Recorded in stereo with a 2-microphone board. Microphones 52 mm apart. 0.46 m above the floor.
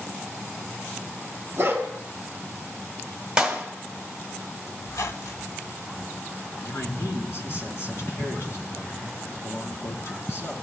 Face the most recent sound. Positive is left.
turn(degrees=55)  # may be behind; listen again after turning